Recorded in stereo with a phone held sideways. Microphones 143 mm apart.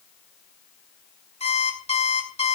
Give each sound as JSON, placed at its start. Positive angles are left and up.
{"t": 1.4, "sound": "an alarm clock", "side_deg": 45, "distance_m": 2.5}